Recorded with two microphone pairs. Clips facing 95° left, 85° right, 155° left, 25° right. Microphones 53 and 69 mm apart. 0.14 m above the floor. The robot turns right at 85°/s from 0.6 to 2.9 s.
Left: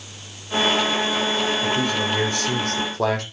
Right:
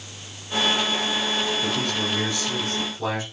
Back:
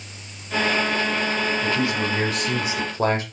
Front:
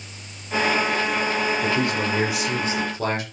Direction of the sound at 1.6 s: 5° right.